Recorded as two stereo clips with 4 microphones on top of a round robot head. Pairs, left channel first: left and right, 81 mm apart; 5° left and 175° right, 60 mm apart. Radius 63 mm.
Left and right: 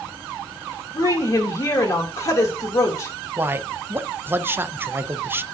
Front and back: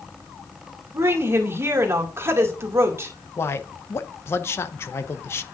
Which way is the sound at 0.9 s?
140° left.